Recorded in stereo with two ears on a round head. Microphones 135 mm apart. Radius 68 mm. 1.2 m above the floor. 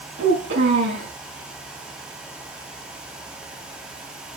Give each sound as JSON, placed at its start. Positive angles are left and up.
{"t": 0.2, "sound": "a child speaking", "side_deg": -85, "distance_m": 8.0}